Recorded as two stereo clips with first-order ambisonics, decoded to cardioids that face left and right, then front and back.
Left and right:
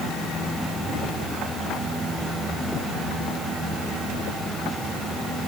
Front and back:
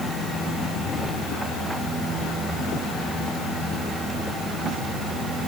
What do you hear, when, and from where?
Only background noise.